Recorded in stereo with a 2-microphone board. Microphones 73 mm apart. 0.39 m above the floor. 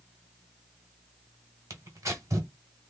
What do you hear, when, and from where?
1.7 s tearing paper: 45° right (ahead or behind), 1.2 m